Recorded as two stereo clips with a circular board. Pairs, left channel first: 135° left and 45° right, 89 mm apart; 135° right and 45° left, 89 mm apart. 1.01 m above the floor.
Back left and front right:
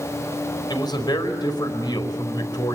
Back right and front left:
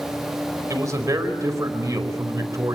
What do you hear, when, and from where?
0.7 s a man speaking: 100° left, 4.5 m